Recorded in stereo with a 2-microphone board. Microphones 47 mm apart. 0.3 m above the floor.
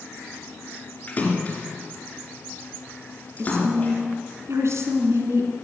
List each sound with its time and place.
1.1 s a splash: 30° left (ahead or behind), 3 m
3.4 s a woman speaking: 70° right (ahead or behind), 2.5 m